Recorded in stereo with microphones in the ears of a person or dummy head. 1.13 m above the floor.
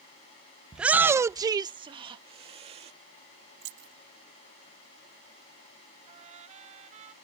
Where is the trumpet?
35° right (ahead or behind).